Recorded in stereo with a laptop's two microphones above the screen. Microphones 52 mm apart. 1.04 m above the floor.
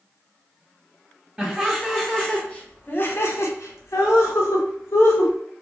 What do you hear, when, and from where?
1.4 s laughter: 5° right (ahead or behind), 1.1 m; by 5.3 s 60° left (ahead or behind), 1.3 m